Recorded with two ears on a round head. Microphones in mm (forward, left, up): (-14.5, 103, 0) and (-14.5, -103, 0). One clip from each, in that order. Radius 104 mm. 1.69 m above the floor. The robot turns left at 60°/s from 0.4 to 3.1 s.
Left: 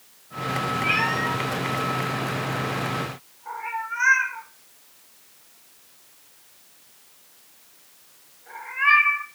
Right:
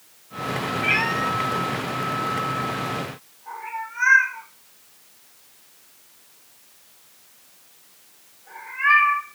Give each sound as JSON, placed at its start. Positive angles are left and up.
{"t": 0.8, "sound": "a cat meowing", "side_deg": -30, "distance_m": 1.2}